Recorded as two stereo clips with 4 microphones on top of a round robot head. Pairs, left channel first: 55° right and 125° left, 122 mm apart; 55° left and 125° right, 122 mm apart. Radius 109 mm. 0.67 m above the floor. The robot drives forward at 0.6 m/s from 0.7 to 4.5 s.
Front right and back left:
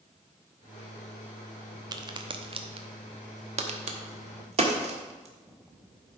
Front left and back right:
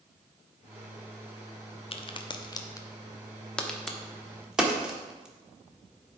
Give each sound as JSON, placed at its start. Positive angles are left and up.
{"t": 1.9, "sound": "a crack", "azimuth_deg": 80, "distance_m": 1.0}